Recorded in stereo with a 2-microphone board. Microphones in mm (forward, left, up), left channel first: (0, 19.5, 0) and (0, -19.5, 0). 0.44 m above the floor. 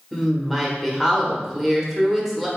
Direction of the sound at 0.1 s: Centre (ahead or behind).